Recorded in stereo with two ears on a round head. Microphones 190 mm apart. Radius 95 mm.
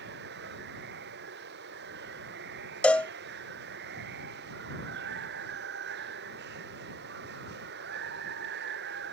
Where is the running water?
50° right (ahead or behind).